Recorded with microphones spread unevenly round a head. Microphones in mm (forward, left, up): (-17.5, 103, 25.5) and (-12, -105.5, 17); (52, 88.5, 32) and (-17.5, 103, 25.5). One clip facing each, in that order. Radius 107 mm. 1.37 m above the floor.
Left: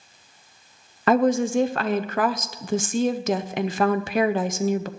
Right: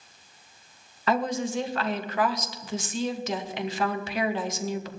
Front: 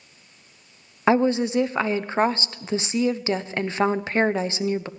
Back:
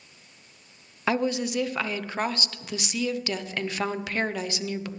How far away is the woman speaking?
About 0.7 m.